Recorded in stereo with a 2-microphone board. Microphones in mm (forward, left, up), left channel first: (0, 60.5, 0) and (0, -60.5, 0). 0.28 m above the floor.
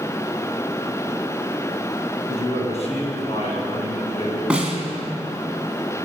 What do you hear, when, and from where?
2.3 s a man speaking: 60° left (ahead or behind), 3 m
4.5 s a snare drum: 10° right (ahead or behind), 2 m